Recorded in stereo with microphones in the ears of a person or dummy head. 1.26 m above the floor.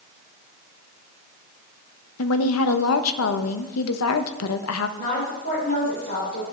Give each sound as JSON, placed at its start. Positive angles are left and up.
{"t": 2.2, "sound": "a woman speaking", "side_deg": 75, "distance_m": 0.6}
{"t": 5.0, "sound": "a woman speaking", "side_deg": 50, "distance_m": 3.0}